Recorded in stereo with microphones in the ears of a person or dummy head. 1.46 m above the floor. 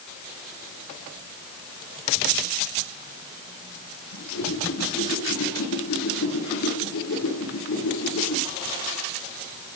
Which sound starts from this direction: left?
A whoosh, at 4.1 s.